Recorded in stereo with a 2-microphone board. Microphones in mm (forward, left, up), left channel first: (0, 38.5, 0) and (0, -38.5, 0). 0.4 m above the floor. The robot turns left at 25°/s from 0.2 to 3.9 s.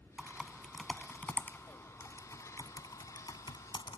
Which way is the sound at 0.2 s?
10° right (ahead or behind).